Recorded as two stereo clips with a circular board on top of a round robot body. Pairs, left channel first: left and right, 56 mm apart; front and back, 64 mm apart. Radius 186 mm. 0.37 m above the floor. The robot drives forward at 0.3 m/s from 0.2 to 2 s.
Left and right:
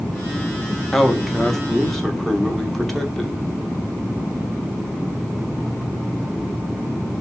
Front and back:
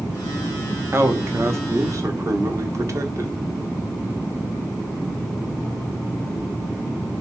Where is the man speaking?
175° left, 0.9 m.